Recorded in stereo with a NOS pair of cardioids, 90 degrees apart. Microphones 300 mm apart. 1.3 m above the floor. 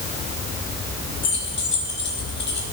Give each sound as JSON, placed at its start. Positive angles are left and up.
{"t": 1.2, "sound": "keys jangling", "azimuth_deg": 40, "distance_m": 3.0}